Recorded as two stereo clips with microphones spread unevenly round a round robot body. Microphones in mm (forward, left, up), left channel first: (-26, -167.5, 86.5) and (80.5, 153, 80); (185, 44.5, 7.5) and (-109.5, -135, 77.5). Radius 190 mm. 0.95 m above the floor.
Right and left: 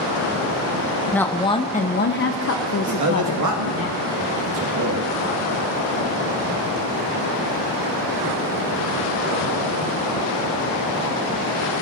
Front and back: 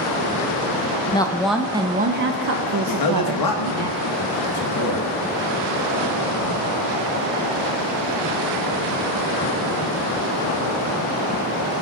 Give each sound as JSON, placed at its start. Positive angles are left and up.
{"t": 1.1, "sound": "a woman speaking", "azimuth_deg": -25, "distance_m": 0.8}
{"t": 2.9, "sound": "a man speaking", "azimuth_deg": 40, "distance_m": 1.6}